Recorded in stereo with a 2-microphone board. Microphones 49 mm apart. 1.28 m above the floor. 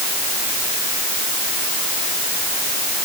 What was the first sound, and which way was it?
Only background noise.